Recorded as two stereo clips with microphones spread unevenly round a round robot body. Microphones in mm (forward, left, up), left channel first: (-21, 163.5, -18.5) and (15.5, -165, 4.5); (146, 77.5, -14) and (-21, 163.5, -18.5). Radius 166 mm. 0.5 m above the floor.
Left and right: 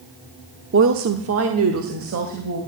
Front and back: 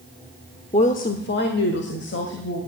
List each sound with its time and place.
0.7 s a woman speaking: 60° right, 0.9 m; by 2.6 s 35° right, 2.5 m